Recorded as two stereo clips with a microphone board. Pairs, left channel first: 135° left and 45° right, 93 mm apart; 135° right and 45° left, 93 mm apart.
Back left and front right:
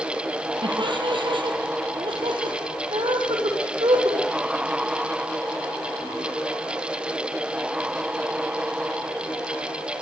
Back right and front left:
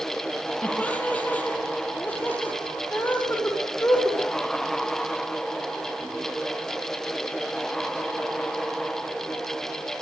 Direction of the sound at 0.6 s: 60° right.